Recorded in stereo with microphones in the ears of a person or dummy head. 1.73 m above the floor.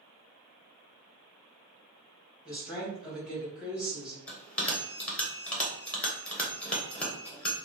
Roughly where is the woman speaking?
Centre.